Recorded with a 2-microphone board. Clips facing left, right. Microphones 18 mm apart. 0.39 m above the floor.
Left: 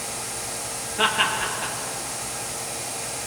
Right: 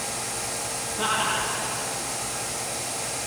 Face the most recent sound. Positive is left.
turn(degrees=80)